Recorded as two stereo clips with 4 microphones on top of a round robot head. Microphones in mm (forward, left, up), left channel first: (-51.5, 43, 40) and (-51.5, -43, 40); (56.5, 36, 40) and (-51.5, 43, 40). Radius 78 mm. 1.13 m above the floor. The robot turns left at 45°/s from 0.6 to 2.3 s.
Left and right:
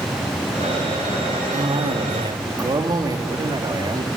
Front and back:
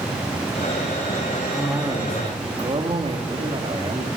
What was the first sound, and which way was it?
A cough, 95° right.